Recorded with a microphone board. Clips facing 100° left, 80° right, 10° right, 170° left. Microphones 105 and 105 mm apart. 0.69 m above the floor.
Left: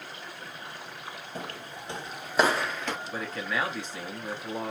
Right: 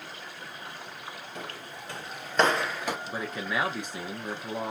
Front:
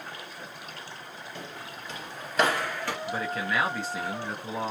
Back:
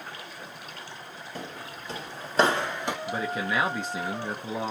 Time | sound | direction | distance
1.4 | footsteps | 145° left | 1.0 m
3.1 | a man speaking | 140° right | 0.8 m